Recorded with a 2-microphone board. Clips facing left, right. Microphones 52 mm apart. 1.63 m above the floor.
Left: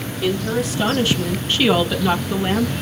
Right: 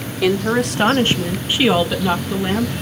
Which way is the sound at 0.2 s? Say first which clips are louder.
Right 4 dB; 75° right (ahead or behind).